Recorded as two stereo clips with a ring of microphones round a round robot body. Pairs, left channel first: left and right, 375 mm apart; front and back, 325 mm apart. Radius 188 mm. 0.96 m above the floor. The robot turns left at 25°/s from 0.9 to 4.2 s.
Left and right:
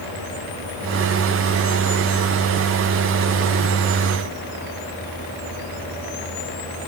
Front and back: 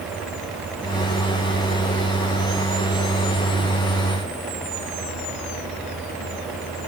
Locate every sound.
Only background noise.